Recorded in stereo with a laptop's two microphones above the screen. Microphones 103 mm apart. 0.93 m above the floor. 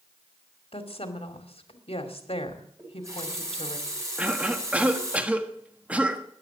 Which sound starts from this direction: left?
A woman speaking, at 0.7 s.